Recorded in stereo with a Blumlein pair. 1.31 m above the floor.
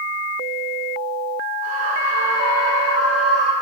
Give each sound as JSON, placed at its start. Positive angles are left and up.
{"t": 1.6, "sound": "a scream", "azimuth_deg": -45, "distance_m": 5.5}